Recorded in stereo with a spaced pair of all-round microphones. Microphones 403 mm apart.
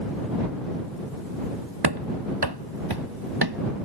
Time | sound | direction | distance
1.8 | running footsteps | 75° right (ahead or behind) | ?